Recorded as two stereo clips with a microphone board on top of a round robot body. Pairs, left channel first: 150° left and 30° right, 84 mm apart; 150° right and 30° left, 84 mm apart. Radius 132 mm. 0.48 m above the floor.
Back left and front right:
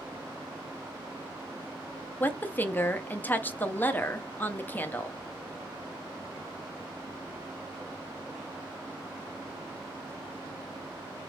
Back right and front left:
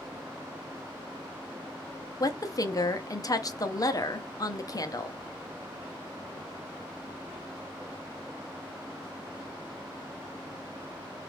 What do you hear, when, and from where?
2.2 s a woman speaking: 150° right, 0.8 m